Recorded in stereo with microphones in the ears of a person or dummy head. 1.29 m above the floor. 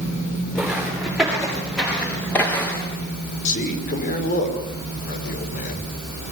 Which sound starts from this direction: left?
A man speaking, at 3.5 s.